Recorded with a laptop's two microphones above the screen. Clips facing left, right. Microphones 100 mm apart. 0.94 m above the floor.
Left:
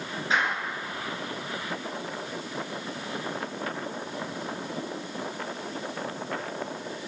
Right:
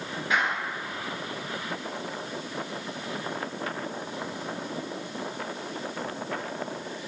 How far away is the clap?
About 9.5 m.